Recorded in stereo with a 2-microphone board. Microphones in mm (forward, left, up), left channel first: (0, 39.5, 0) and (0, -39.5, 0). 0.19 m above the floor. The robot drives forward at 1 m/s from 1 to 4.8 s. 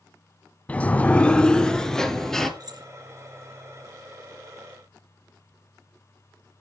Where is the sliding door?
15° left (ahead or behind), 0.6 m; by 2.5 s 5° left (ahead or behind), 1.9 m.